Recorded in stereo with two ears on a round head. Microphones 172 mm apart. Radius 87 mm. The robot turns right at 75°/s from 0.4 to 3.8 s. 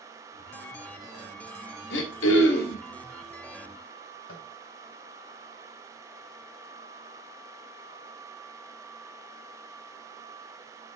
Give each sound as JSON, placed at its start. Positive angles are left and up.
{"t": 1.9, "sound": "throat clearing", "azimuth_deg": 65, "distance_m": 1.7}
{"t": 4.3, "sound": "tapping", "side_deg": 75, "distance_m": 2.5}